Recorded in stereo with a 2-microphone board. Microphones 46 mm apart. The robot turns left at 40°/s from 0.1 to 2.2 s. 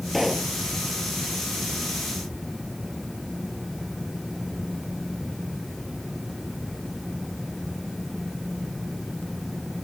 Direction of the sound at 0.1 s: 5° left (ahead or behind).